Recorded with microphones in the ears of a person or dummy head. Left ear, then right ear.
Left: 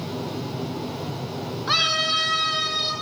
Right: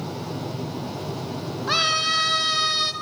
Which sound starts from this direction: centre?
A scream, at 1.7 s.